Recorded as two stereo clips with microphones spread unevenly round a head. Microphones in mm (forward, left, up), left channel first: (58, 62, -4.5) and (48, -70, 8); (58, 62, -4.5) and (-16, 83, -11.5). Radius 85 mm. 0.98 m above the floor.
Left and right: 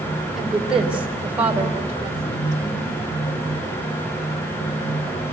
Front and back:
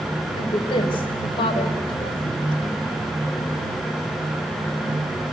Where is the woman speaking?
5° right, 3 m; by 2.8 s 25° right, 3.5 m.